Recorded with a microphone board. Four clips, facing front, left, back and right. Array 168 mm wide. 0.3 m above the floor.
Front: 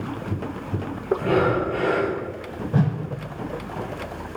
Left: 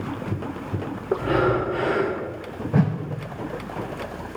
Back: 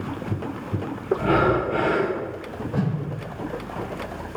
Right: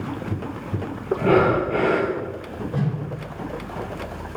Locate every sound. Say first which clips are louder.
1.2 s breathing: right 5 dB, back 1 dB; 90° right, 2.5 m
2.7 s a whoosh: left 5 dB, front 3 dB; 55° left, 0.9 m